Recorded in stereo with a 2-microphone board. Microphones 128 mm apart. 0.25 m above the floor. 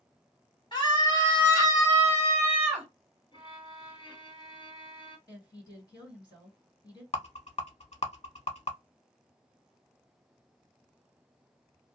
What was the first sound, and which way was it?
A scream, 40° left (ahead or behind).